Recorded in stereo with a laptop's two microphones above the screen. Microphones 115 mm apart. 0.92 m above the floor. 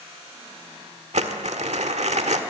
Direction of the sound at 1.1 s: 75° right (ahead or behind).